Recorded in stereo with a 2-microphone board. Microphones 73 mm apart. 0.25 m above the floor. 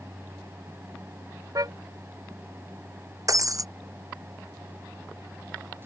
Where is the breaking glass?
50° right (ahead or behind).